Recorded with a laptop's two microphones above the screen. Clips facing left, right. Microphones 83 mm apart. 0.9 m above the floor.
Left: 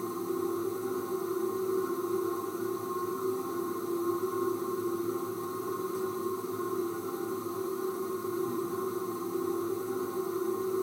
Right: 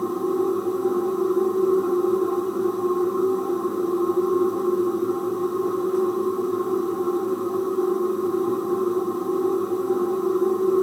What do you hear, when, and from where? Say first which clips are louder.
0.0 s a machine running: right 10 dB; 60° right (ahead or behind), 1.5 m